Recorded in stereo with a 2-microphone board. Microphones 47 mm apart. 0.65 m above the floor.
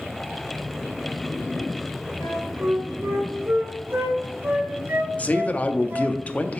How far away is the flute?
About 2.5 m.